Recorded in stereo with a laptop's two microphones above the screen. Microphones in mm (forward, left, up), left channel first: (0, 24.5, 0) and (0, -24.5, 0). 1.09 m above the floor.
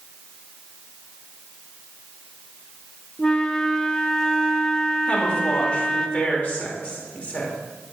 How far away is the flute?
About 0.9 m.